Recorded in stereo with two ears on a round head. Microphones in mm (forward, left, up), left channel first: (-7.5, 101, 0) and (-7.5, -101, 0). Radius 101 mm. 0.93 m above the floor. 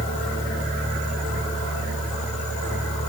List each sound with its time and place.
Only background noise.